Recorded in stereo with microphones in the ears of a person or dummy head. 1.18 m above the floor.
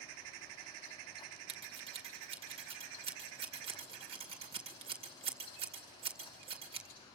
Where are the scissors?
25° right (ahead or behind), 2.5 m.